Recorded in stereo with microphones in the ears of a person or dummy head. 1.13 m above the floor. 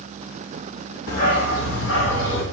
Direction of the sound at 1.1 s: 45° left (ahead or behind).